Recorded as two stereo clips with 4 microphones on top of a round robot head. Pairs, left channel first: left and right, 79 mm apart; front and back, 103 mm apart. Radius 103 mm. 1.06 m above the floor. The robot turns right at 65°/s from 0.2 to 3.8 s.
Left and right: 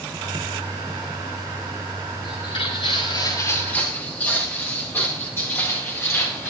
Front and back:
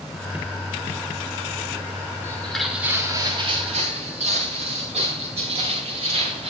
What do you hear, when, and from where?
2.2 s footsteps: 60° left, 8 m; by 6.5 s 150° left, 9 m